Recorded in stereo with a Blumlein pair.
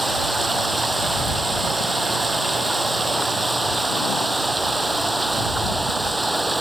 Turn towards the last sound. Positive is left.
turn(degrees=-5)